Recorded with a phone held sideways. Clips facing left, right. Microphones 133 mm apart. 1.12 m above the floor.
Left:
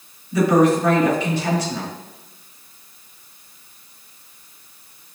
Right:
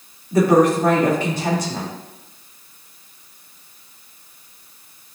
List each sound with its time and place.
0.3 s a woman speaking: 50° right (ahead or behind), 3 m